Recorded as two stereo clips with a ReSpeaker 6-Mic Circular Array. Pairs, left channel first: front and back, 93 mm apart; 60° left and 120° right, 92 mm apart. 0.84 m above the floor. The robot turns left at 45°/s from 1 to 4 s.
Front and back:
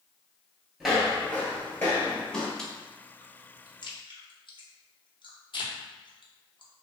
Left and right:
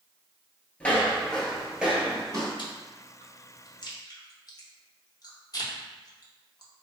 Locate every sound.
0.8 s footsteps: 110° left, 0.8 m; by 2.5 s 85° right, 1.2 m
2.6 s chewing: 80° left, 0.5 m; by 6.7 s 20° left, 0.5 m